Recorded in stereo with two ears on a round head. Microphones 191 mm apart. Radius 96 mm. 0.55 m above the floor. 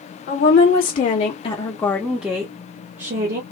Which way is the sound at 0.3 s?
50° left (ahead or behind).